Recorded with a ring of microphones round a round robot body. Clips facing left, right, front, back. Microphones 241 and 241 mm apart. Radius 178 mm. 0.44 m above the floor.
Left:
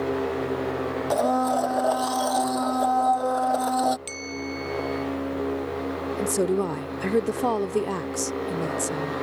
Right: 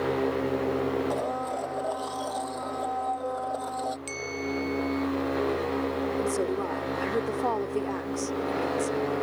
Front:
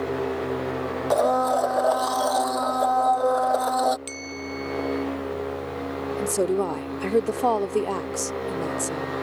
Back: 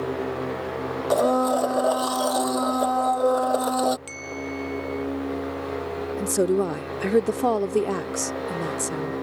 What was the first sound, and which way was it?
A blender, 125° left.